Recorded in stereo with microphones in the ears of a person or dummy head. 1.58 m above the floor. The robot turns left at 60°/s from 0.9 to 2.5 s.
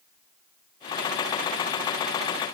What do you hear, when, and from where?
Only background noise.